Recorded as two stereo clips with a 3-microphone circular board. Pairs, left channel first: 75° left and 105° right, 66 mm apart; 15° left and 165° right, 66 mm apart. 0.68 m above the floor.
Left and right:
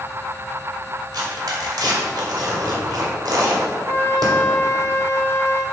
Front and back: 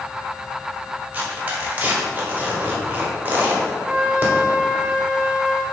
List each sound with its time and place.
1.1 s tearing paper: 95° right, 1.6 m
3.9 s a flute: 125° left, 0.8 m